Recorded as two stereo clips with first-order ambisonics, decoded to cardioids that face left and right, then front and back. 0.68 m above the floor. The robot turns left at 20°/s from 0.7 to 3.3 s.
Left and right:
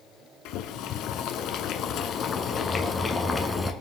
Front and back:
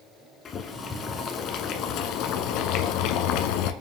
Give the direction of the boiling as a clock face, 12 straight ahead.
10 o'clock.